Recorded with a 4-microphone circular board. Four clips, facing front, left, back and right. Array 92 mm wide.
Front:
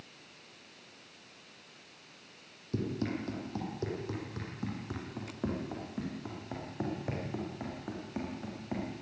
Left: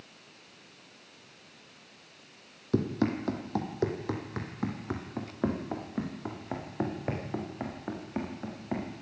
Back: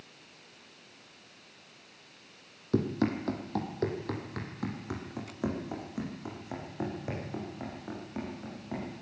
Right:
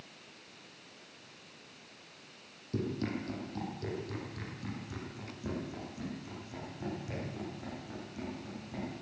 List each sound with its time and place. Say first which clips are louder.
2.7 s running footsteps: left 7 dB, back 6 dB; 130° left, 4 m; by 8.9 s 80° left, 8.5 m